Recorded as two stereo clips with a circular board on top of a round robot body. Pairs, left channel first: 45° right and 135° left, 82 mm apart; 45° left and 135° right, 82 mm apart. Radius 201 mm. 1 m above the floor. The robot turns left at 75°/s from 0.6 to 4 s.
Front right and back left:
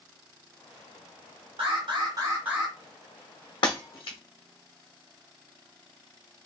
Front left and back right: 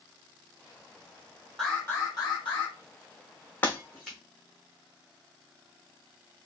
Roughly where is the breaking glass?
Ahead right.